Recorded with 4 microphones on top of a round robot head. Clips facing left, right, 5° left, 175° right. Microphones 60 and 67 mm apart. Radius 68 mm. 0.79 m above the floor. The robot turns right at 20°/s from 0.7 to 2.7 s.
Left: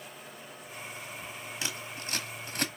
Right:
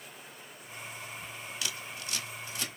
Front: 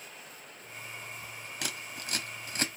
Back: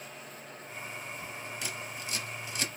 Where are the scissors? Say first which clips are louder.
Left 2 dB, back 1 dB; 30° left, 1.1 m; by 2.7 s 50° left, 1.1 m.